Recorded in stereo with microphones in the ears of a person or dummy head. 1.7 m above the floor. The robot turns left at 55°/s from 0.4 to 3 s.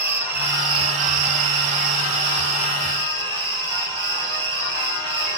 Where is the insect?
10° right, 1.7 m; by 5.4 s 155° right, 1.7 m.